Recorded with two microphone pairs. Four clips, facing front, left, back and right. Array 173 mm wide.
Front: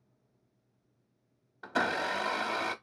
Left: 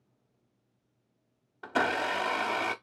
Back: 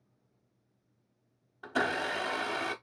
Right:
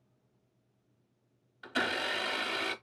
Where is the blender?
80° left, 0.8 m.